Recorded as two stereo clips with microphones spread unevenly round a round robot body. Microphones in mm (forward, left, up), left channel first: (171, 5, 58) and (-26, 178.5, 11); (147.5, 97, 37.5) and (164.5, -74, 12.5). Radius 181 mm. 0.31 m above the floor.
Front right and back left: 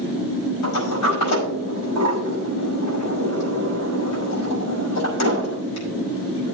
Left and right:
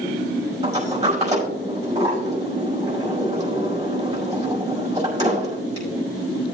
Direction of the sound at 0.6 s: 35° right.